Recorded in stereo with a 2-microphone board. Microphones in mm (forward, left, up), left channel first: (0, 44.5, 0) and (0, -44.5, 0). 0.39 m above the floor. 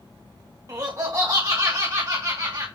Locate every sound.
0.7 s laughter: 35° right (ahead or behind), 1.6 m